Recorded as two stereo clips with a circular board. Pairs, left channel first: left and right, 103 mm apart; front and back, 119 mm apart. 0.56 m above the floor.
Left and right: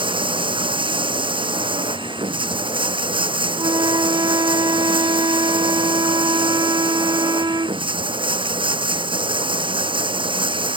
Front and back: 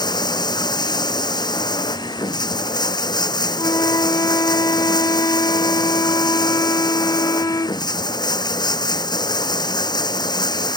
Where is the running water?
55° right.